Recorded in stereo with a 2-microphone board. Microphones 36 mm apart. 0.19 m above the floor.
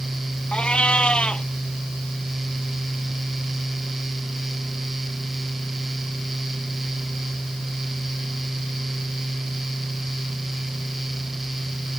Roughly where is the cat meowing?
Left.